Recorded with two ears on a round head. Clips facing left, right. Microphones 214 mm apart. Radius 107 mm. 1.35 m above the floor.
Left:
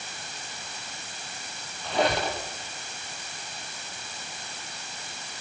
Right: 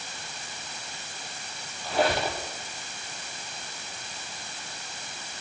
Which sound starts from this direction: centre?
A squeak, at 1.8 s.